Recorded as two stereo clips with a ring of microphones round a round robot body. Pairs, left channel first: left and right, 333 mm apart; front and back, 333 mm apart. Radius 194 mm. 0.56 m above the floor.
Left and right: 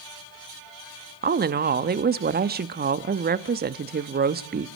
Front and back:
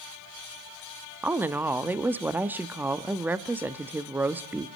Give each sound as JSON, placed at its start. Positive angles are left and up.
{"t": 1.2, "sound": "a woman speaking", "azimuth_deg": -100, "distance_m": 0.8}